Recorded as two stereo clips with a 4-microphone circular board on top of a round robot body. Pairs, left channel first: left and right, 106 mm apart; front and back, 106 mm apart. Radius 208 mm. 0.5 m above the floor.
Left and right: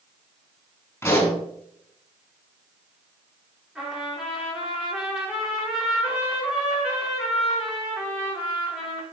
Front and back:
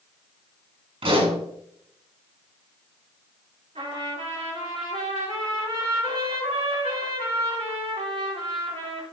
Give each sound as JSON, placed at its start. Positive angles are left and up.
{"t": 1.0, "sound": "a pop", "azimuth_deg": 160, "distance_m": 5.0}
{"t": 3.8, "sound": "a trumpet", "azimuth_deg": -175, "distance_m": 4.5}